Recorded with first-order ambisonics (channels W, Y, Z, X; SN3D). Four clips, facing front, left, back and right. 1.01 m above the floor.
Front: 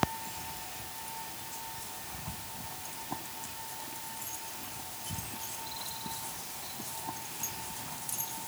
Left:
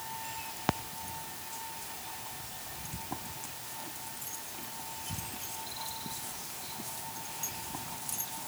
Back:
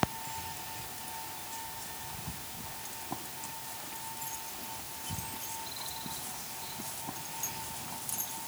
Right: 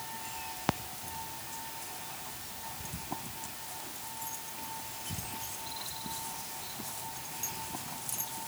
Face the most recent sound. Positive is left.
No sound to turn to.